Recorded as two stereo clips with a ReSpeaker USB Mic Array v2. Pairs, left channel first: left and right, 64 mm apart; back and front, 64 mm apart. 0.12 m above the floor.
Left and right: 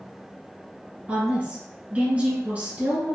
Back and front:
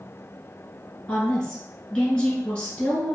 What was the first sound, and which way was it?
A woman speaking, 120° right.